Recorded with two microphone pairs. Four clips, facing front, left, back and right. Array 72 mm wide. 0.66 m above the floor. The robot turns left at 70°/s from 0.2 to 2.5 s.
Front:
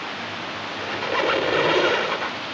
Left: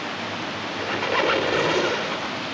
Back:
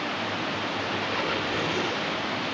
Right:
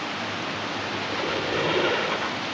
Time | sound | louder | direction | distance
0.8 | a squeak | left 10 dB, front 9 dB | 80° left | ?